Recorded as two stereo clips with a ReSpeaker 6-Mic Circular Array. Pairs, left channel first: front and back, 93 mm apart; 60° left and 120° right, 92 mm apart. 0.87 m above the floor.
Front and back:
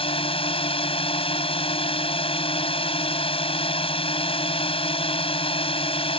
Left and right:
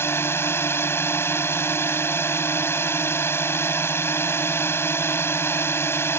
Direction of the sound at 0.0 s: 5° right.